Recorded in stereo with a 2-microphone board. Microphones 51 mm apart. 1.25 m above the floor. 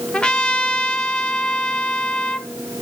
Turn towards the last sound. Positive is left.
turn(degrees=20)  # may be behind; listen again after turning